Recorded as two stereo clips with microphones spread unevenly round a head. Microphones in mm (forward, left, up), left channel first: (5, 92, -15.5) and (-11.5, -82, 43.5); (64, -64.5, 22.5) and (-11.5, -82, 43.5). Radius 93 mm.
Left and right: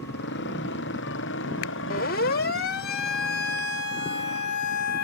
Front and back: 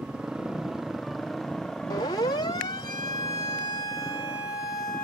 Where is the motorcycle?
110° left; by 5.1 s 90° left.